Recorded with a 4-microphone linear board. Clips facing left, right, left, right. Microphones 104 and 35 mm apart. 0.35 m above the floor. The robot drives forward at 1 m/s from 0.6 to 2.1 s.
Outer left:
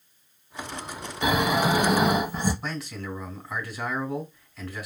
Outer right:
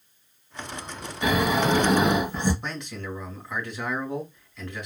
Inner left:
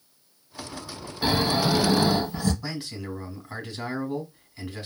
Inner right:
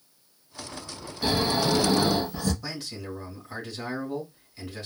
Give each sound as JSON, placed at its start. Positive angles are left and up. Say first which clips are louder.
{"t": 1.2, "sound": "snoring", "louder": "even, inner left 1 dB", "side_deg": 20, "distance_m": 0.8}
{"t": 2.6, "sound": "a man speaking", "louder": "outer left 1 dB, inner left 2 dB", "side_deg": 5, "distance_m": 1.7}